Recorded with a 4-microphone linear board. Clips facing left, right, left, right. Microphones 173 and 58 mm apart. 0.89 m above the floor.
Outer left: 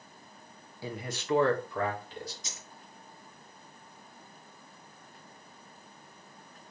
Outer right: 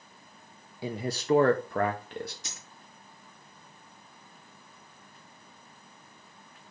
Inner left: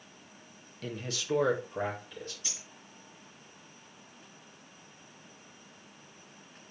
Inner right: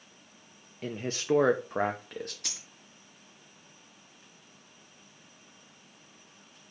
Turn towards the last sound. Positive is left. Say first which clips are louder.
# even, inner right 1 dB
turn(degrees=-75)  # may be behind; listen again after turning